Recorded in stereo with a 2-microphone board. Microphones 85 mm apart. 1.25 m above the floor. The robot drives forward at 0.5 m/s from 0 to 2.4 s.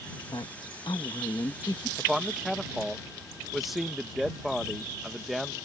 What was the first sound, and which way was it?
A woman speaking, 90° left.